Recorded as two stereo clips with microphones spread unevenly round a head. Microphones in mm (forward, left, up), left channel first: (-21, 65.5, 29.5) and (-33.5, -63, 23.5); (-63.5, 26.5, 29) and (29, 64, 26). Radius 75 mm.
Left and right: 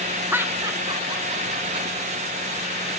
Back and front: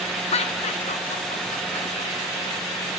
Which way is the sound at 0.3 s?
170° right.